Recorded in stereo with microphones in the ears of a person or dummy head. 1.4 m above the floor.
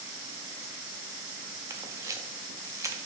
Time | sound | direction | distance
1.7 | a camera shutter | 20° right (ahead or behind) | 0.5 m